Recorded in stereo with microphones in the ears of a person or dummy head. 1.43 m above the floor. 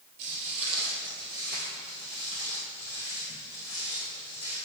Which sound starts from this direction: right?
Footsteps, at 0.2 s.